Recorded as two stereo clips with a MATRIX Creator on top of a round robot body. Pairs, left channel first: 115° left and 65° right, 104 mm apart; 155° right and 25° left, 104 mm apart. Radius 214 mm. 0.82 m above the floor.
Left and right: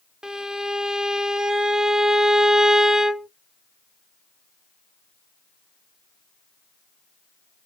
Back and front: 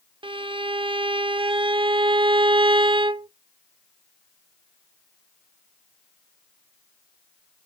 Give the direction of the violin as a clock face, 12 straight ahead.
11 o'clock.